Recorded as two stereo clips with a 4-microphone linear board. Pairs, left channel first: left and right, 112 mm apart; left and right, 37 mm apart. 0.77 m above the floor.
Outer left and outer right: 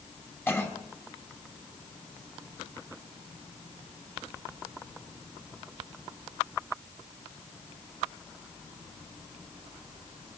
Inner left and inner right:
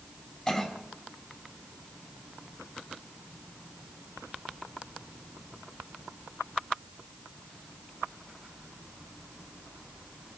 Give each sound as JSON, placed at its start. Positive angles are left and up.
{"t": 0.5, "sound": "a cough", "side_deg": 20, "distance_m": 5.5}